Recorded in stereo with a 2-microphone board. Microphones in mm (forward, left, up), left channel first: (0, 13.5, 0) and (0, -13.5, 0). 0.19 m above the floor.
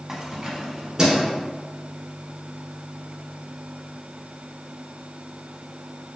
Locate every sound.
0.1 s keys jangling: 10° right (ahead or behind), 0.7 m; by 1.3 s 20° right (ahead or behind), 1.5 m